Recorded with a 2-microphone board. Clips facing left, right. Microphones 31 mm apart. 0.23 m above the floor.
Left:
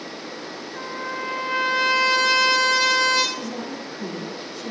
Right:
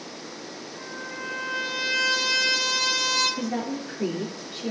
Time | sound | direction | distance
0.8 | a trumpet | 50° left (ahead or behind) | 5 m
3.4 | a woman speaking | 75° right (ahead or behind) | 3.5 m